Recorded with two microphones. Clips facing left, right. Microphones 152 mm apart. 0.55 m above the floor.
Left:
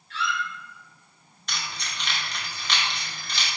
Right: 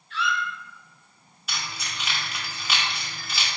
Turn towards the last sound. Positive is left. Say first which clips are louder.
# even
turn(degrees=-5)  # may be behind; listen again after turning